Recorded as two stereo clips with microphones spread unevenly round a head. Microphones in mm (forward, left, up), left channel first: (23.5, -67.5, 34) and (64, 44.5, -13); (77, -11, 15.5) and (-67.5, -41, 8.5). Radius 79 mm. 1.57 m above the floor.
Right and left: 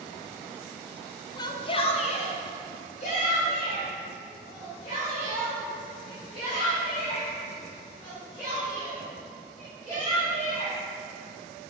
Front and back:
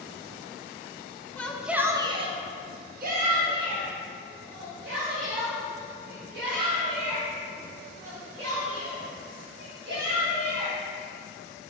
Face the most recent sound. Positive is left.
turn(degrees=-175)